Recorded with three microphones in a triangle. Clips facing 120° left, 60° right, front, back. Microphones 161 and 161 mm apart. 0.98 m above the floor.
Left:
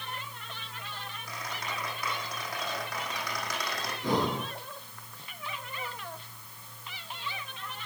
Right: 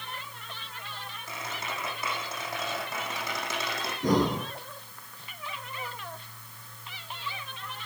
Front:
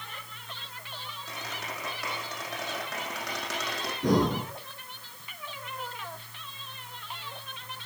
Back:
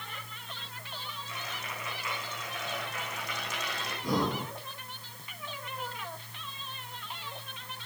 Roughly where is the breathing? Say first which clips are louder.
Right 4 dB, front 6 dB; ahead.